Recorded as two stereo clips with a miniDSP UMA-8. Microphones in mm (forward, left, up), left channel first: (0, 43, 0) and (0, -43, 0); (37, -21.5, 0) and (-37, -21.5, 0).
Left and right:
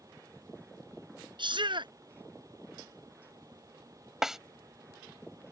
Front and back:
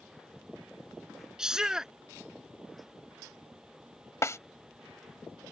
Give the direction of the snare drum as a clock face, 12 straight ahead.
12 o'clock.